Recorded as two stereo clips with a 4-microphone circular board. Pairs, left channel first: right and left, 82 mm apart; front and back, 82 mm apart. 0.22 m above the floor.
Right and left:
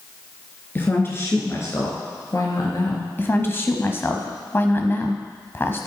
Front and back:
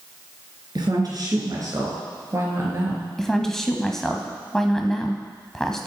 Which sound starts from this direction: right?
A woman speaking, at 3.2 s.